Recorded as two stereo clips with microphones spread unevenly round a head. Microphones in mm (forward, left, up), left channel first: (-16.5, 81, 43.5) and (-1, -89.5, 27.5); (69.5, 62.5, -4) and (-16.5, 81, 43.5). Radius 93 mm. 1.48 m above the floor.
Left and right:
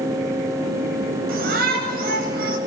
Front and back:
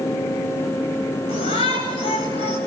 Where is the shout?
45° right, 9 m.